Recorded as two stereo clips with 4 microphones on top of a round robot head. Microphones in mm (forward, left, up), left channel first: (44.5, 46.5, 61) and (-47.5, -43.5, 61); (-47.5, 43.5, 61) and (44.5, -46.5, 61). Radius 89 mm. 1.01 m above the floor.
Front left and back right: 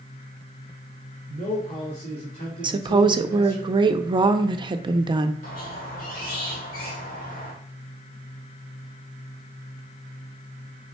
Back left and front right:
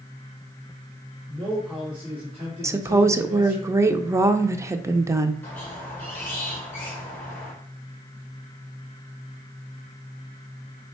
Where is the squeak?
60° left, 1.3 m.